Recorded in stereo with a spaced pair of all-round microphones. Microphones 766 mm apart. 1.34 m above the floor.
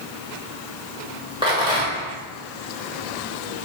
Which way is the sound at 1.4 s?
5° right (ahead or behind).